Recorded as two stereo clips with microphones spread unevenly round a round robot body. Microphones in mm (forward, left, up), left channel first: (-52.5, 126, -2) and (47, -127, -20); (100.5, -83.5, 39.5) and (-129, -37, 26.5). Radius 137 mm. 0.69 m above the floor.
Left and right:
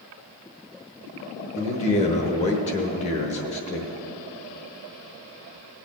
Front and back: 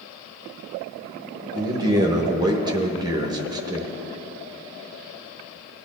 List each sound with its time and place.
1.6 s a man speaking: 140° left, 1.0 m